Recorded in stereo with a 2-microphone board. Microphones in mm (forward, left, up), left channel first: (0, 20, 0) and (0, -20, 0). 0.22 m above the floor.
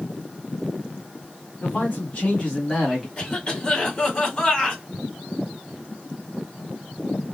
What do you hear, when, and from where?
1.6 s a man speaking: 45° left (ahead or behind), 1.9 m; by 3.1 s 10° right (ahead or behind), 1.4 m
3.2 s a cough: 25° left (ahead or behind), 1.7 m